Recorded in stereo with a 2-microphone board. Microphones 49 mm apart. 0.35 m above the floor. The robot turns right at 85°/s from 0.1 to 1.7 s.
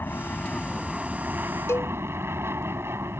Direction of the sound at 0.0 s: 120° left.